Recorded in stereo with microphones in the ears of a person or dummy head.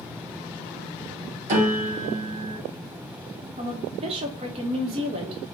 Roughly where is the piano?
Right.